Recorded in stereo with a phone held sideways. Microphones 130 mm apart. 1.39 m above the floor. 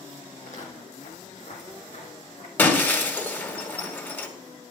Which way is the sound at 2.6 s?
15° left (ahead or behind).